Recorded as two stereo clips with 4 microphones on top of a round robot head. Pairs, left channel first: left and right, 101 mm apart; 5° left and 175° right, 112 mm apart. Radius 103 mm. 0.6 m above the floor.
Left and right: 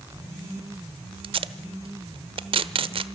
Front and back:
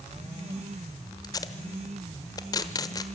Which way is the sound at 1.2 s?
55° right.